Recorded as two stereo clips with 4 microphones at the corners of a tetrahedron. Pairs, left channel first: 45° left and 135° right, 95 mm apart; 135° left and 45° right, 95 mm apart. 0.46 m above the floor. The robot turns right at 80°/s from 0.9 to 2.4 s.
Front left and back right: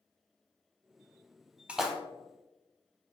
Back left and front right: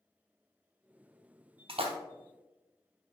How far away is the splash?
About 0.6 m.